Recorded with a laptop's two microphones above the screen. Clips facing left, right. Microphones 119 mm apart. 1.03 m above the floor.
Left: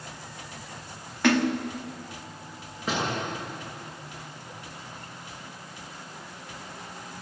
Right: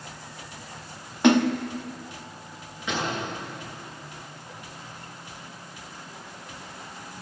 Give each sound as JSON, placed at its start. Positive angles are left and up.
{"t": 1.2, "sound": "a splash", "side_deg": -20, "distance_m": 1.2}
{"t": 2.9, "sound": "a door slam", "side_deg": 40, "distance_m": 9.5}